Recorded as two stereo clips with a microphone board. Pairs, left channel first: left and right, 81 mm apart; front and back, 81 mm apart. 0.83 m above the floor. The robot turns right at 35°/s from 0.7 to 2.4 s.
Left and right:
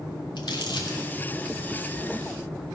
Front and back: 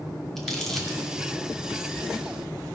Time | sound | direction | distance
0.4 | crumpling | 85° left | 2 m